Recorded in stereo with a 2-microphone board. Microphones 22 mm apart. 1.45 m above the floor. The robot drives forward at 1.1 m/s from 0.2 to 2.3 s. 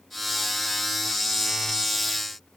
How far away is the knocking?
No knocking in this recording.